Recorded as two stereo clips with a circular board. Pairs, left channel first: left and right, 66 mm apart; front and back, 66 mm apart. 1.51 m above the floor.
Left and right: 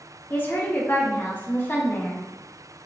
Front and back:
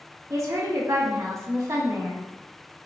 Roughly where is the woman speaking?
Behind left.